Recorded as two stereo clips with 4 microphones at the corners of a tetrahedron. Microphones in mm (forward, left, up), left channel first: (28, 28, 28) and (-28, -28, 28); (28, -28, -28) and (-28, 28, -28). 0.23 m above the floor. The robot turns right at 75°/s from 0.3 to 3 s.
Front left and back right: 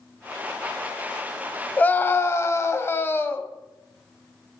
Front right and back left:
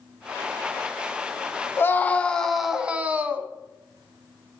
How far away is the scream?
About 1.3 m.